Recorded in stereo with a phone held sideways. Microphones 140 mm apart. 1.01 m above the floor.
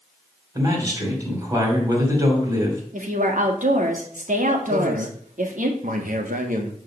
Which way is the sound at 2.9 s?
65° right (ahead or behind).